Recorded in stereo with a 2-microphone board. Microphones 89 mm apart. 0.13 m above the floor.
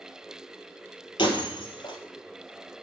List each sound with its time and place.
1.2 s breaking glass: 65° left (ahead or behind), 2 m